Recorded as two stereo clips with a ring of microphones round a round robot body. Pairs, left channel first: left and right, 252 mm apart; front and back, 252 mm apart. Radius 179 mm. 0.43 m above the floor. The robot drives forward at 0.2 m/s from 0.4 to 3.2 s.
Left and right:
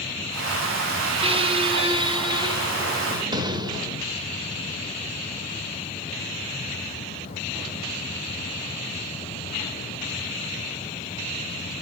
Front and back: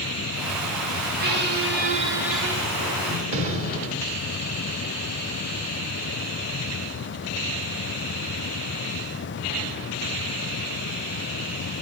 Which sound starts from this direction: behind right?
A squeak, at 1.2 s.